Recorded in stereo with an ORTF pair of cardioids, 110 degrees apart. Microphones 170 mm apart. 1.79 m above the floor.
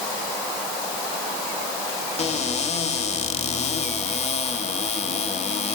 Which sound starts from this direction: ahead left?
A cupboard door, at 2.2 s.